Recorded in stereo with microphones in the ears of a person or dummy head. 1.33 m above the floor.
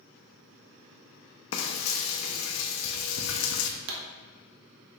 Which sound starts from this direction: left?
Frying, at 1.5 s.